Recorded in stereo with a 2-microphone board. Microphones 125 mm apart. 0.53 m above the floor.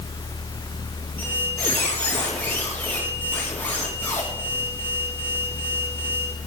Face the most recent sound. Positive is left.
turn(degrees=20)  # may be behind; listen again after turning